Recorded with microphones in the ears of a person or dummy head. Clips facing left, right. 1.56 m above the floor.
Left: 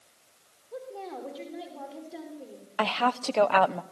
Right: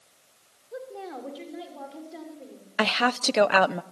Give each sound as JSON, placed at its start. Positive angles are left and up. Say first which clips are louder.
{"t": 0.7, "sound": "a woman speaking", "louder": "right 1 dB", "side_deg": -5, "distance_m": 5.0}
{"t": 2.8, "sound": "a woman speaking", "louder": "right 2 dB", "side_deg": -25, "distance_m": 0.7}